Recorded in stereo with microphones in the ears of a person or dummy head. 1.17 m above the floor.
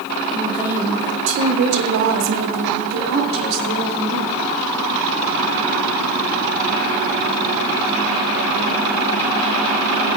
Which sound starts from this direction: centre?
A woman speaking, at 0.3 s.